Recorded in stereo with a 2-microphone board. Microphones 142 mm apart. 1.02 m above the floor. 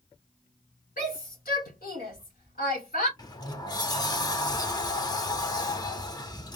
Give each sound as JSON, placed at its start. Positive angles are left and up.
{"t": 1.0, "sound": "a shout", "side_deg": 80, "distance_m": 3.5}
{"t": 3.2, "sound": "a sliding door", "side_deg": 25, "distance_m": 0.8}